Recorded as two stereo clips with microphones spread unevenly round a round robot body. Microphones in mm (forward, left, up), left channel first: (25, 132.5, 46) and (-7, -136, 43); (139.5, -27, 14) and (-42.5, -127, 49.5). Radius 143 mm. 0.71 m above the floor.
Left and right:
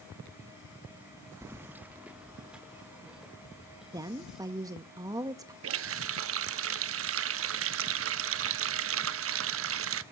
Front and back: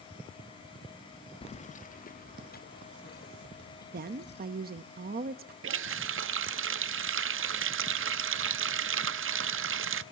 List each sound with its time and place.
1.4 s keys jangling: 20° right, 0.7 m; by 4.4 s 10° right, 3.5 m
3.9 s a woman speaking: 165° right, 0.7 m
5.6 s a running tap: 130° right, 0.8 m